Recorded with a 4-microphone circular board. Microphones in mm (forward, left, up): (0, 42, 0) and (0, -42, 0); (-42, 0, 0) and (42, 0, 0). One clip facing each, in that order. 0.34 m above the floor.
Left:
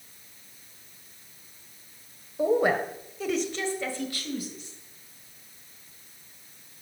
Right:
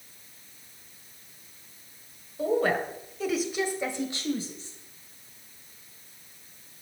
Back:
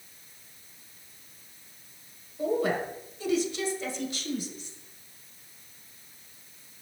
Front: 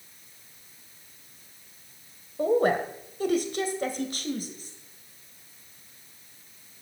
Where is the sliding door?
No sliding door in this recording.